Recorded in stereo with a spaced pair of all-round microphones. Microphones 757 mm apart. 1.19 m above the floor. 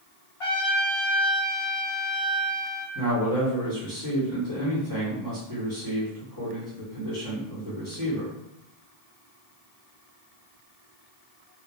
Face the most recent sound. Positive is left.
turn(degrees=-25)  # may be behind; listen again after turning